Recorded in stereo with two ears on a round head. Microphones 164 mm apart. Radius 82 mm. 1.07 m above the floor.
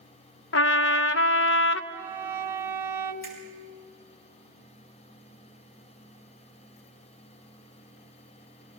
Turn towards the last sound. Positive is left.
turn(degrees=55)  # may be behind; listen again after turning